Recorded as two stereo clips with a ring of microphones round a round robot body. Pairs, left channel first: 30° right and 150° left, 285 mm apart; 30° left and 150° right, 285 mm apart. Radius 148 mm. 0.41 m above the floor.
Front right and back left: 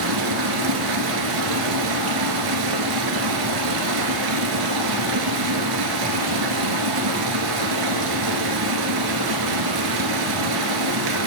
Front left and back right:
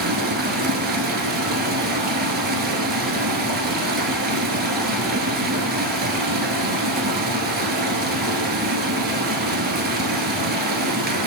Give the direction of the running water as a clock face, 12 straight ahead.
7 o'clock.